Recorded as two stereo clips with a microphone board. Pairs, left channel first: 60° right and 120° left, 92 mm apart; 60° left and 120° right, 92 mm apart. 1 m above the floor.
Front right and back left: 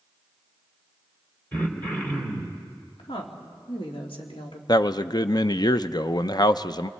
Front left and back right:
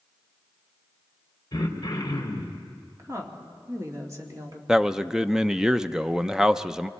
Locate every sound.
1.5 s throat clearing: 10° left, 2.5 m
3.0 s a woman speaking: 65° right, 2.5 m
4.7 s a man speaking: 40° right, 0.5 m